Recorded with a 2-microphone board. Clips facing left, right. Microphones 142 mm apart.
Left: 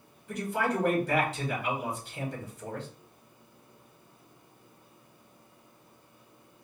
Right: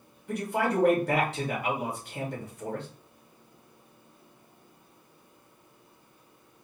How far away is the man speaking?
About 2.5 m.